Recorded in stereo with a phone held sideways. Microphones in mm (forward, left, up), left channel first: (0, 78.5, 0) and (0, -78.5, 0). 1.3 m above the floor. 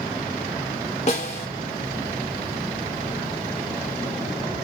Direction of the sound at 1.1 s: 45° left (ahead or behind).